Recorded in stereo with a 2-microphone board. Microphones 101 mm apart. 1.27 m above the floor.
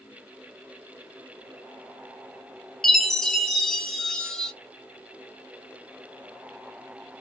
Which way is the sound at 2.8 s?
5° left (ahead or behind).